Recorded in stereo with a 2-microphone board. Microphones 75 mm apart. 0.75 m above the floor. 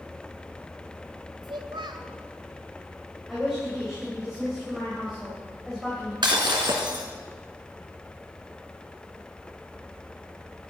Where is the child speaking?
85° right, 1.8 m.